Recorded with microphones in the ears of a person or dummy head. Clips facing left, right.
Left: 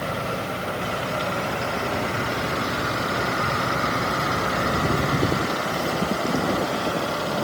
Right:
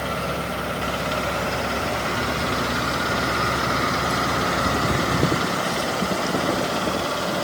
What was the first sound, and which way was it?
Only background noise.